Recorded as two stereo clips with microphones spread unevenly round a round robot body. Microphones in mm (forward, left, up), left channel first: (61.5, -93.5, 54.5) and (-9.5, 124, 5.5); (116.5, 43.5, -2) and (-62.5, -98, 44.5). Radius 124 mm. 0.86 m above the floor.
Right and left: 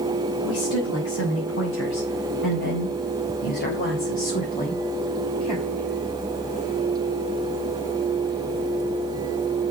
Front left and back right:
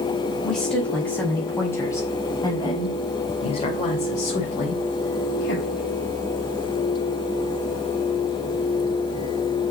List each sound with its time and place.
0.4 s a woman speaking: 50° right, 5.5 m; by 5.8 s straight ahead, 4.5 m